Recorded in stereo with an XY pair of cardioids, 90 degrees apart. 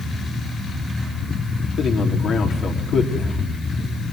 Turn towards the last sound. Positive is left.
turn(degrees=65)